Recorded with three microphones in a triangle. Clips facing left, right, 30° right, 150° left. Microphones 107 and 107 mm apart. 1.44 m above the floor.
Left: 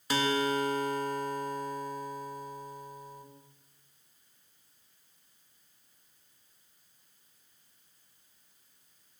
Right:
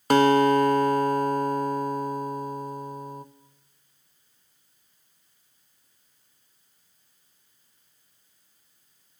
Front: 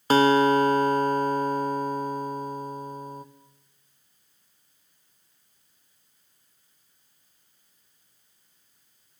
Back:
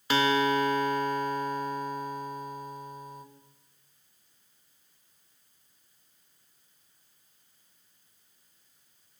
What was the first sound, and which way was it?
A guitar, 70° right.